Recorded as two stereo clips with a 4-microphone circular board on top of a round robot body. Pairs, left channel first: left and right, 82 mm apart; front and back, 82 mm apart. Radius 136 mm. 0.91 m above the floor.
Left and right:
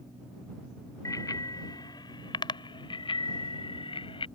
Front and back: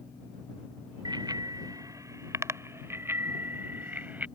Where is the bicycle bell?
140° left; by 4.2 s 110° left.